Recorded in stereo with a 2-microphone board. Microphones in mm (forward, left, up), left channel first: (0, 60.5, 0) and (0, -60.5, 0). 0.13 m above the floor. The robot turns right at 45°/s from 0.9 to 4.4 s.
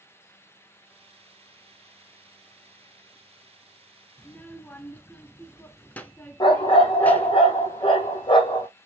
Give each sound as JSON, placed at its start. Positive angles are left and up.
{"t": 4.2, "sound": "a child speaking", "side_deg": 10, "distance_m": 0.7}
{"t": 6.4, "sound": "a dog barking", "side_deg": 45, "distance_m": 1.5}